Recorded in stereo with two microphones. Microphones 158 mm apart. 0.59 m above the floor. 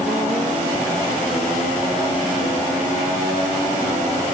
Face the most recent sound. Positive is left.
No sound to turn to.